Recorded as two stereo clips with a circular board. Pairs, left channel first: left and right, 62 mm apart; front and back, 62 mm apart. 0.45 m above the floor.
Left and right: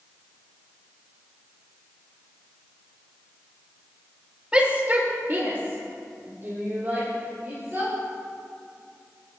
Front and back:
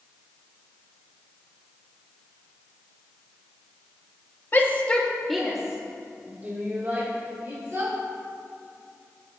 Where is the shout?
30° right, 1.7 m; by 7.9 s 140° right, 4.5 m.